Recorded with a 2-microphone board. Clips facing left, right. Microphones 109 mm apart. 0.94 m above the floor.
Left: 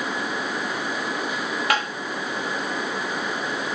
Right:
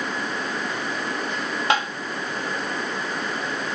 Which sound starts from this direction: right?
Tapping, at 1.7 s.